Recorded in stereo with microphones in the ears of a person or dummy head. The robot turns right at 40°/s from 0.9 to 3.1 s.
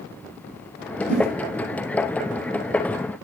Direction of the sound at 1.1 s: 50° left (ahead or behind).